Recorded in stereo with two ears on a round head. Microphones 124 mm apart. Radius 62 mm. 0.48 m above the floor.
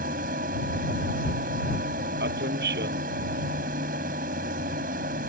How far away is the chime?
No chime in this recording.